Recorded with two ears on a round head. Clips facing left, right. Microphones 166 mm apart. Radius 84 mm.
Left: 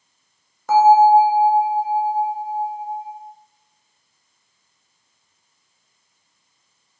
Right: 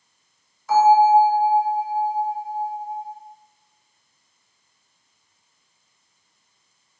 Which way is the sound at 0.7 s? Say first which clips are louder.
Left 3 dB; 45° left (ahead or behind).